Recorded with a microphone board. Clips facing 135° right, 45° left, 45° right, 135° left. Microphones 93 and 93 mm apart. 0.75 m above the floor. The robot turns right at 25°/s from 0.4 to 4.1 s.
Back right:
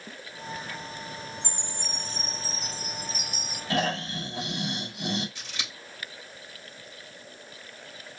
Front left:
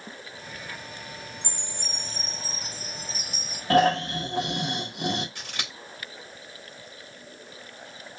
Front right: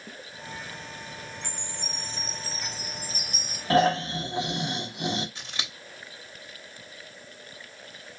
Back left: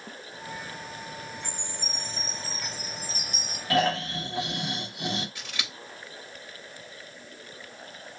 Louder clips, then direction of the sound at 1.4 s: Back right 1 dB, back left 1 dB; 60° right.